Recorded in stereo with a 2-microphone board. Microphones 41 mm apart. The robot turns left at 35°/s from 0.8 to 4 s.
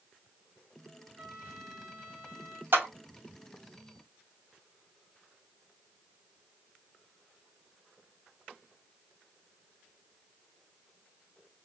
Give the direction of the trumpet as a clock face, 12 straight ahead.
1 o'clock.